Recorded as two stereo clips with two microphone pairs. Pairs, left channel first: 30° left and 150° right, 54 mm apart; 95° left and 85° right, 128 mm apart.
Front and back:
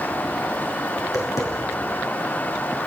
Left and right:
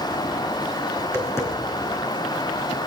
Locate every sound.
1.0 s tapping: 25° left, 3.5 m